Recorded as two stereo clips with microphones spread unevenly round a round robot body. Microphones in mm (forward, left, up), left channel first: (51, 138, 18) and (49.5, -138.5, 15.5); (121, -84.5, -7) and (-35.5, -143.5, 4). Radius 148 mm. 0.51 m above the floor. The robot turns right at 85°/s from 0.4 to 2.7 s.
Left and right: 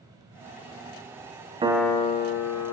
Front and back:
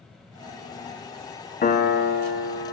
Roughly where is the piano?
Ahead.